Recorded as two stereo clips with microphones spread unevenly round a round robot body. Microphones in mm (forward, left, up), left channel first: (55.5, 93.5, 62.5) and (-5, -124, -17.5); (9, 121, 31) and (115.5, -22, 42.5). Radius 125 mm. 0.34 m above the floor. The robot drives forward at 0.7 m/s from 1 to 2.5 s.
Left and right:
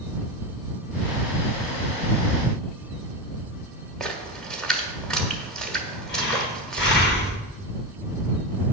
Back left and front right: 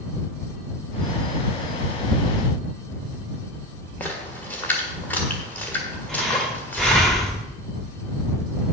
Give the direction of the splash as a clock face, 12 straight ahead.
6 o'clock.